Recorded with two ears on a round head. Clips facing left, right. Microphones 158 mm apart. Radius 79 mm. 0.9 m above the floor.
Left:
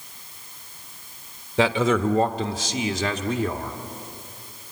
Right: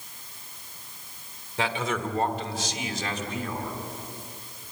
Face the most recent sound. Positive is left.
turn(degrees=50)  # may be behind; listen again after turning